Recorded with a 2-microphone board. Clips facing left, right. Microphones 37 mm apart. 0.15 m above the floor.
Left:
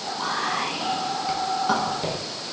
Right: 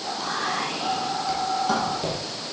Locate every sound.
0.2 s whispering: 20° left (ahead or behind), 1.1 m